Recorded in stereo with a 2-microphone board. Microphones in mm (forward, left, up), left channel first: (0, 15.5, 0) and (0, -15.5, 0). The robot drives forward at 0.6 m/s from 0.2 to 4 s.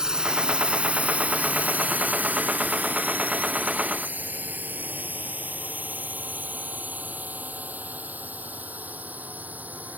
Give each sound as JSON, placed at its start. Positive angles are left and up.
{"t": 0.0, "sound": "a drone", "side_deg": -25}